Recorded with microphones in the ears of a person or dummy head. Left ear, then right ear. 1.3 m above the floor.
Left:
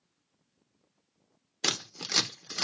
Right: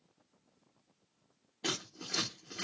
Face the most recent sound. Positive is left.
turn(degrees=65)  # may be behind; listen again after turning